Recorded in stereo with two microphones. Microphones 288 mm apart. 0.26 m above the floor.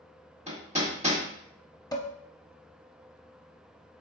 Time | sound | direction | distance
0.5 | hammering | 25° right (ahead or behind) | 1.1 m
1.9 | dishes clattering | 15° left (ahead or behind) | 0.6 m